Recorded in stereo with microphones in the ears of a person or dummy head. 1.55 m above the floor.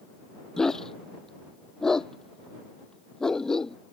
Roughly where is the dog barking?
Centre.